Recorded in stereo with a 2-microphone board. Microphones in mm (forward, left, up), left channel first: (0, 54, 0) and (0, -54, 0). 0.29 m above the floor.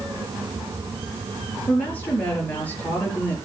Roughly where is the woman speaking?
Centre.